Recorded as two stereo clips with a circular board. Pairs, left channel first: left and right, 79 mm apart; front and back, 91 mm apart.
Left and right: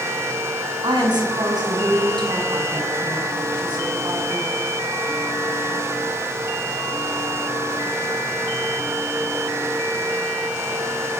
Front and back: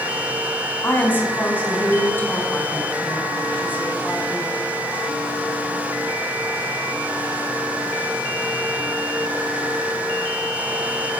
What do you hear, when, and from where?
0.8 s a woman speaking: 65° right, 5.5 m